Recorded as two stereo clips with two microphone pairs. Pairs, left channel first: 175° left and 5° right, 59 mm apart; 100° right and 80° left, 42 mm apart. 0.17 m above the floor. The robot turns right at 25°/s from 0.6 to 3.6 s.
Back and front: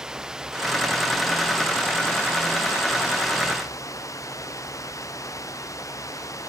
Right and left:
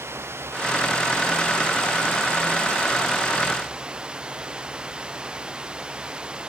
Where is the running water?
70° left; by 6.5 s 145° left.